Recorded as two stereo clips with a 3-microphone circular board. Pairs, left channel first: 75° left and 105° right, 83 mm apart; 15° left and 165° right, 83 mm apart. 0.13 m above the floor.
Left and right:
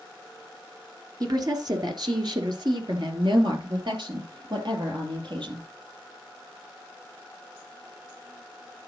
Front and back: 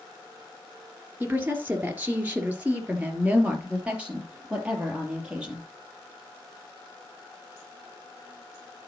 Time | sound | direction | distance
1.2 | a woman speaking | 105° right | 2.5 m